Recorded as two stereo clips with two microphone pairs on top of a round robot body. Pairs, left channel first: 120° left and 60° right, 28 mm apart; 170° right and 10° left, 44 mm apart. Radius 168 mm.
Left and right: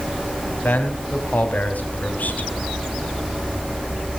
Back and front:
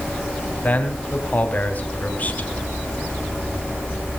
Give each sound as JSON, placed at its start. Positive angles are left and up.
{"t": 0.6, "sound": "a man speaking", "azimuth_deg": 140, "distance_m": 3.5}